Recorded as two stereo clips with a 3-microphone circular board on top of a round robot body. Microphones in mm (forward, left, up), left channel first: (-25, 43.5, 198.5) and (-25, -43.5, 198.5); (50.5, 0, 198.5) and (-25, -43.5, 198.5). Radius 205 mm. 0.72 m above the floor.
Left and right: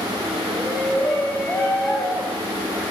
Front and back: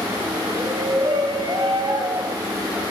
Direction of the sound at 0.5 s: 170° left.